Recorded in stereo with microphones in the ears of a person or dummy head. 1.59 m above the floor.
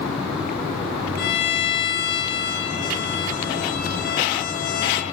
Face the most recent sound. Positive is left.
turn(degrees=50)  # may be behind; listen again after turning